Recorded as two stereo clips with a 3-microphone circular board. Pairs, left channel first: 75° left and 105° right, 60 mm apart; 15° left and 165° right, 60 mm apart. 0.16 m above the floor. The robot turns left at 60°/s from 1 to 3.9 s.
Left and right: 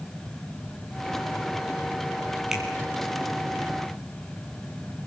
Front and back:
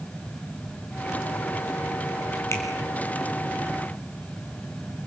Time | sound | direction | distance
2.5 | a finger snap | 25° right | 5 m